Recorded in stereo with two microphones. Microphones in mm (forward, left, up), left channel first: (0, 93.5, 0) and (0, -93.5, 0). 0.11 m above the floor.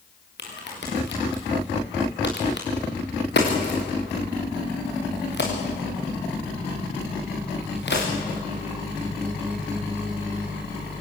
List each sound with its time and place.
0.4 s a crack: 70° left (ahead or behind), 5.5 m